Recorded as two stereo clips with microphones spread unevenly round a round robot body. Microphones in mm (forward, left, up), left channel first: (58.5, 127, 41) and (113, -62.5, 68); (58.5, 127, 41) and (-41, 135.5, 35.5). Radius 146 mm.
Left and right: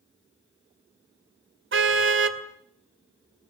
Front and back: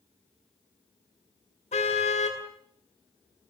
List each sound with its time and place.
1.7 s a car horn: 55° right, 2 m